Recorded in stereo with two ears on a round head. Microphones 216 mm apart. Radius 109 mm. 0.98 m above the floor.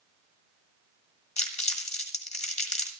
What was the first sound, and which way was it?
Crumpling, 30° left (ahead or behind).